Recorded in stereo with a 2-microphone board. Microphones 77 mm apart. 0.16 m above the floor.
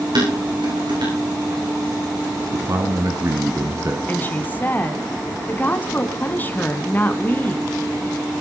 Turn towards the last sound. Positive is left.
turn(degrees=25)  # may be behind; listen again after turning